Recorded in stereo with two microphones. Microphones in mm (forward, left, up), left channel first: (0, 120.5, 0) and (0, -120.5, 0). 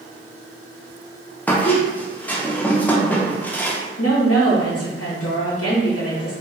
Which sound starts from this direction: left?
A woman speaking, at 4.0 s.